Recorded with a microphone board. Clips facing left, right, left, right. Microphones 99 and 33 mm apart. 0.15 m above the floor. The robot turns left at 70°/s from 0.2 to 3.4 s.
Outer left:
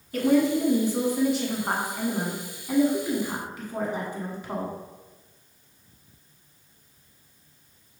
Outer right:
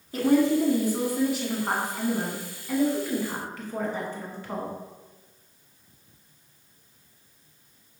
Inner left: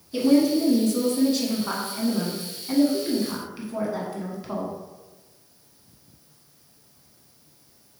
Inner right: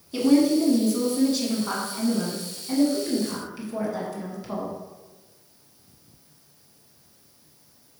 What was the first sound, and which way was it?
A woman speaking, 20° right (ahead or behind).